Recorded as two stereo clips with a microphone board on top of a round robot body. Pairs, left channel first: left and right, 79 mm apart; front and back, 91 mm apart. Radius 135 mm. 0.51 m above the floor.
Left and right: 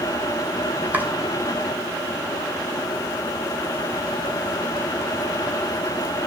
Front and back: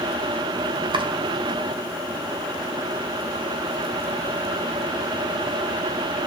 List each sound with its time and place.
0.9 s chopping: 160° right, 2.5 m